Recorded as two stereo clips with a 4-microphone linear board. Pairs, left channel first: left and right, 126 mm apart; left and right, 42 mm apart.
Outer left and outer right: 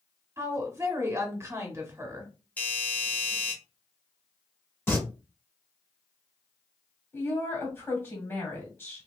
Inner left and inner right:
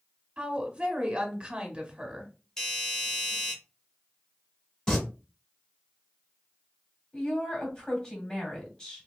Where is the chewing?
No chewing in this recording.